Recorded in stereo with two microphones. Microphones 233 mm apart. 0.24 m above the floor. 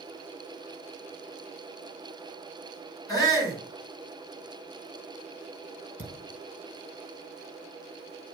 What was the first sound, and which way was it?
A shout, 15° left (ahead or behind).